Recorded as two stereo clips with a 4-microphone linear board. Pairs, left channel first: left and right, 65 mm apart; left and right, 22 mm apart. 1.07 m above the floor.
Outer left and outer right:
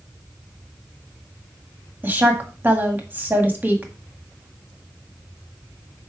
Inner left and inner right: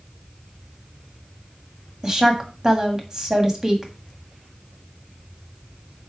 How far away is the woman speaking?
About 1.7 m.